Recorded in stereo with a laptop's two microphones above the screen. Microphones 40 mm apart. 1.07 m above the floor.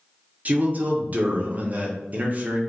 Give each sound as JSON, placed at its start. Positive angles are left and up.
{"t": 0.5, "sound": "a man speaking", "side_deg": -35, "distance_m": 0.6}